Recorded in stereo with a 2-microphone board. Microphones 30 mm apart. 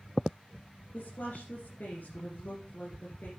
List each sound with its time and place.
0.9 s a woman speaking: 70° left (ahead or behind), 3 m